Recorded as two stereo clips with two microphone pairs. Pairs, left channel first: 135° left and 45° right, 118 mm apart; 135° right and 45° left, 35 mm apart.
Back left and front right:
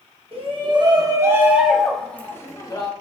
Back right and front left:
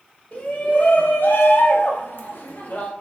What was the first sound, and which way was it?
A shout, 80° right.